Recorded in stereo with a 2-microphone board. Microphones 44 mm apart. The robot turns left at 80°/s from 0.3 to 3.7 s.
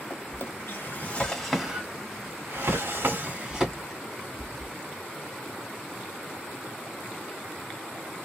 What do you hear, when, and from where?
0.1 s a drawer: 65° left (ahead or behind), 1.4 m; by 4.7 s 5° right (ahead or behind), 1.4 m